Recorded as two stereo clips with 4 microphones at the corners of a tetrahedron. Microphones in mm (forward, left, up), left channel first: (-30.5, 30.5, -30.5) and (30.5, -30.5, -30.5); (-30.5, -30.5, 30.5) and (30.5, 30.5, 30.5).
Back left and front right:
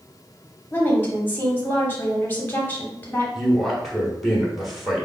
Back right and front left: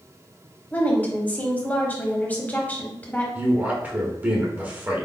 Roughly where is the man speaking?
Ahead left.